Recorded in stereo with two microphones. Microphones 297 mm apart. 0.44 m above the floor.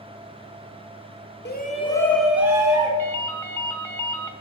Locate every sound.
1.4 s a shout: 35° left (ahead or behind), 0.9 m; by 2.9 s 15° right (ahead or behind), 1.9 m
3.0 s a ringtone: 5° left (ahead or behind), 0.9 m